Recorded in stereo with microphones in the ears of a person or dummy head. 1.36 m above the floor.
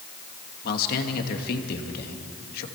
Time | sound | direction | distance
0.6 | a man speaking | 55° left (ahead or behind) | 2 m